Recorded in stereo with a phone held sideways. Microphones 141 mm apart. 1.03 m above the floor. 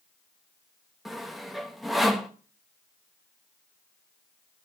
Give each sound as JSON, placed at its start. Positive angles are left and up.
{"t": 1.1, "sound": "sawing", "side_deg": 0, "distance_m": 1.1}